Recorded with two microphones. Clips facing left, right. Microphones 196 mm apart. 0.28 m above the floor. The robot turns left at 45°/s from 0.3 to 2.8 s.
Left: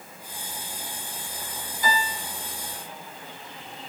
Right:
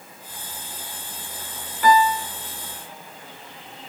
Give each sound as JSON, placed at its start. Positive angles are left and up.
{"t": 1.8, "sound": "a piano", "side_deg": -70, "distance_m": 1.3}